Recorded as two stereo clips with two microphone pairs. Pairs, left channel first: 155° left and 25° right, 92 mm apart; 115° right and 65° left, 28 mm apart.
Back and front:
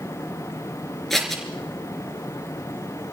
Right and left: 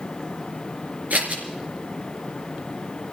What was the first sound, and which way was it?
Scissors, 65° left.